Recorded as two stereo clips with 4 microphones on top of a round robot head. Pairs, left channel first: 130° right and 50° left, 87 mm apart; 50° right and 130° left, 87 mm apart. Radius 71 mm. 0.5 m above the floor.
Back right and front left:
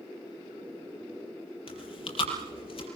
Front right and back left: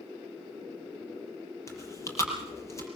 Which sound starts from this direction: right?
Chewing, at 1.7 s.